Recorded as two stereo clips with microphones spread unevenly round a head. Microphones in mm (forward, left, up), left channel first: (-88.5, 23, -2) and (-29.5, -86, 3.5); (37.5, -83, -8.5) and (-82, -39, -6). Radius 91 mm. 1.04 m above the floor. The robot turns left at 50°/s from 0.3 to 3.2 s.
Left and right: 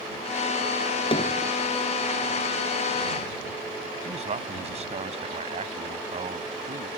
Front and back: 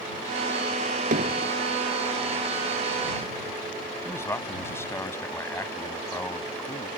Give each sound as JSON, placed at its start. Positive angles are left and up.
{"t": 1.1, "sound": "hammering", "azimuth_deg": 165}
{"t": 4.0, "sound": "a man speaking", "azimuth_deg": -90}